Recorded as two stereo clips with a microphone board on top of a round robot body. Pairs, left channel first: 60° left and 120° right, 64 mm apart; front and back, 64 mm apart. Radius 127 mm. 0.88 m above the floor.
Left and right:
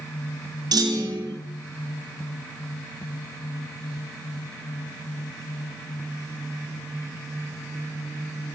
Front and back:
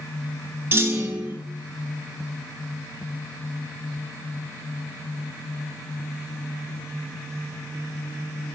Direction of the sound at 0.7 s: 125° right.